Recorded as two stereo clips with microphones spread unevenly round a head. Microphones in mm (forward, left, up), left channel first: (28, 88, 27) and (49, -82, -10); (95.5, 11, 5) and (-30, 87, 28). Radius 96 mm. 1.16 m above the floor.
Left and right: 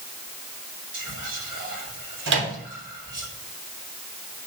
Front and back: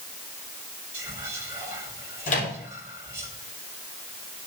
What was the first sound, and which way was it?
Whispering, 130° right.